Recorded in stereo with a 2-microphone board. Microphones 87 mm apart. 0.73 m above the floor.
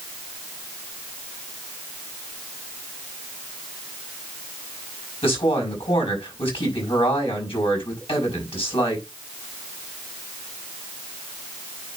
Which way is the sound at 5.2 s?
80° left.